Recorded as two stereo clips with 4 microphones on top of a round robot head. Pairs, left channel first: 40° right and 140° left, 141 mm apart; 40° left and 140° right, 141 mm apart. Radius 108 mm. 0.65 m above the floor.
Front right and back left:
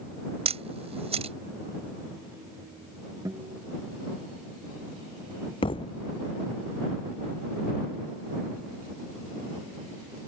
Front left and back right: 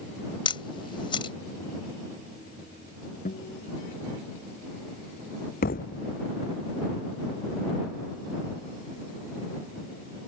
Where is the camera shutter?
95° left.